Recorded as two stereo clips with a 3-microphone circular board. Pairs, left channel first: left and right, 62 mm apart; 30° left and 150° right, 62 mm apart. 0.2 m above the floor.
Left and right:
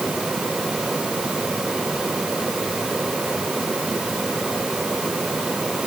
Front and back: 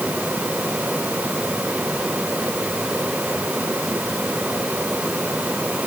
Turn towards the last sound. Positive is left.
No sound to turn to.